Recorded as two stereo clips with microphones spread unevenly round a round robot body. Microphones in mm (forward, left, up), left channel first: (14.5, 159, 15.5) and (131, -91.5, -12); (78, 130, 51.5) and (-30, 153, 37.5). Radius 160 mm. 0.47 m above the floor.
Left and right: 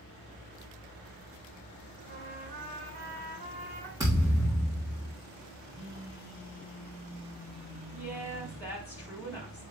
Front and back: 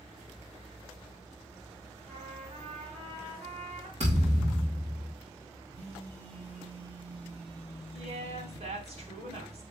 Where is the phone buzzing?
135° right, 4 m.